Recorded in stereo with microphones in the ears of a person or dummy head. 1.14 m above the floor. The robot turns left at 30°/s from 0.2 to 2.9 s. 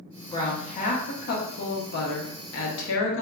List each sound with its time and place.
0.3 s a woman speaking: 155° left, 0.7 m; by 3.2 s 75° left, 0.7 m